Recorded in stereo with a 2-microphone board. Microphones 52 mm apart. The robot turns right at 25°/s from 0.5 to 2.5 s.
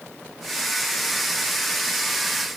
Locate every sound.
Only background noise.